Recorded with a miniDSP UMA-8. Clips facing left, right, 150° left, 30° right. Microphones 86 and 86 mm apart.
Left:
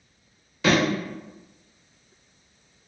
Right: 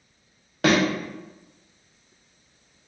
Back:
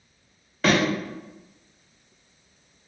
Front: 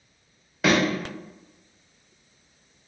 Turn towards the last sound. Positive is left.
turn(degrees=-115)